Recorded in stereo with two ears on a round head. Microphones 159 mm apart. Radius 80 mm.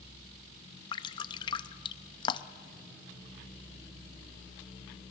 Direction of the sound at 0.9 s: 25° left (ahead or behind).